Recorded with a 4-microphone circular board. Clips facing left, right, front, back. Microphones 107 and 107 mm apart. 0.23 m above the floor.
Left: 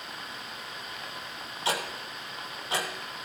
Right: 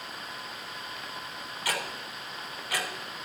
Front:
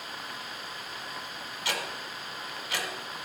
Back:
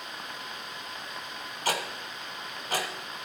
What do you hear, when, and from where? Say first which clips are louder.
1.6 s ticking: left 3 dB, back 4 dB; 150° left, 1.8 m